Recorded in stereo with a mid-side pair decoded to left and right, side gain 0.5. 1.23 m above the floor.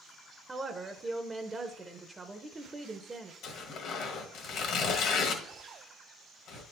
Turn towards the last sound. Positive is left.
turn(degrees=70)